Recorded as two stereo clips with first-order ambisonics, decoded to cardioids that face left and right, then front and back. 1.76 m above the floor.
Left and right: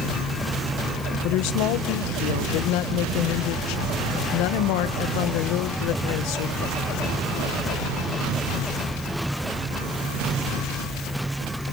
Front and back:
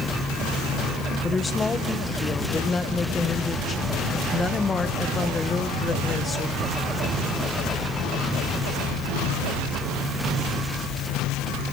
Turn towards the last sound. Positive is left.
turn(degrees=75)